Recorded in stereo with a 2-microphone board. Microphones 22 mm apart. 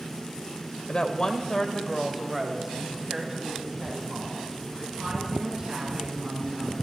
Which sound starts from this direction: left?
A woman speaking, at 0.9 s.